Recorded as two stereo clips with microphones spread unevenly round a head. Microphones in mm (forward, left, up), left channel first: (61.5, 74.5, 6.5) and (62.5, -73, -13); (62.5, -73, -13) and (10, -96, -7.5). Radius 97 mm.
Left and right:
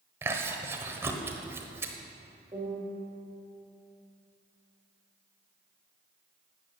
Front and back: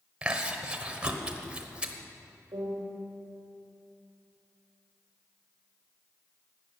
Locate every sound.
0.2 s chewing: 160° right, 1.1 m
2.5 s a piano: 165° right, 2 m